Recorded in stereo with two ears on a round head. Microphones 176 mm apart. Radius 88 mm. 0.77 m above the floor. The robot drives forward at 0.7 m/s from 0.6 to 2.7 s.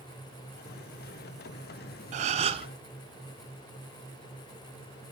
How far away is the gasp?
About 0.8 m.